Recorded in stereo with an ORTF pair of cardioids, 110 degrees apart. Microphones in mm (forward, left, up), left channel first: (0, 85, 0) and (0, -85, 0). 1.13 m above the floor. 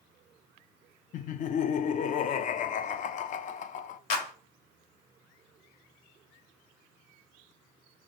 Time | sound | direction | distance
1.1 | laughter | 50° left | 0.5 m
4.1 | a clap | 65° left | 1.6 m